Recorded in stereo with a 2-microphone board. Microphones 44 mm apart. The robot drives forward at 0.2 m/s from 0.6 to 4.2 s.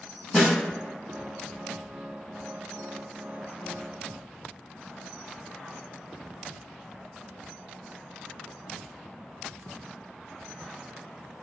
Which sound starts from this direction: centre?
A snare drum, at 0.3 s.